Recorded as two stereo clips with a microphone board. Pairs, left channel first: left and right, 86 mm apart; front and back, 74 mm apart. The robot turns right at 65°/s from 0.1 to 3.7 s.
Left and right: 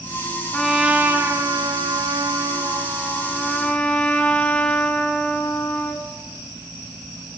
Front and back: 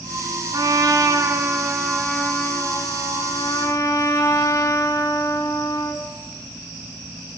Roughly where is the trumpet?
Behind.